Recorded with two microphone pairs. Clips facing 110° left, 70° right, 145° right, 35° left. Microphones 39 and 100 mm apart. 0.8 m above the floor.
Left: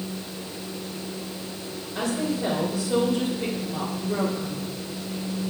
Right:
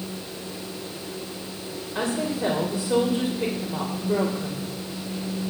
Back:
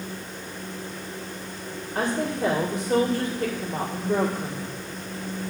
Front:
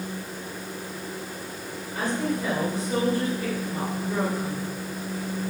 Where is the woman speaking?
130° right, 2 m.